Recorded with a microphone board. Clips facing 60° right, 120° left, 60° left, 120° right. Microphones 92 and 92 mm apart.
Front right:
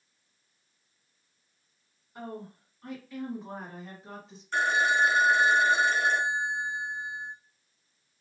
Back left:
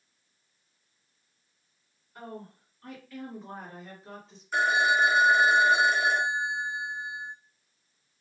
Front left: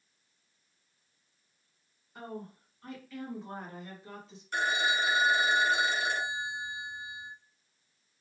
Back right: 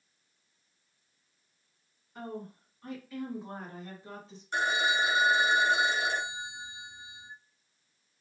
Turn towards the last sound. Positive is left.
turn(degrees=-165)